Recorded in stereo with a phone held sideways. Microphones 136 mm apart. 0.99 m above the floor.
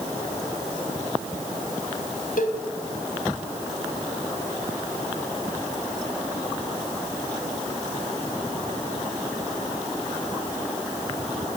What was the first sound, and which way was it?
A cowbell, 85° left.